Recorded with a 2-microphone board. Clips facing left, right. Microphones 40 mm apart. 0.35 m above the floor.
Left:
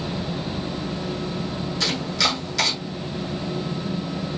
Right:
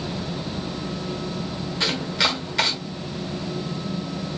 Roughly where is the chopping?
Right.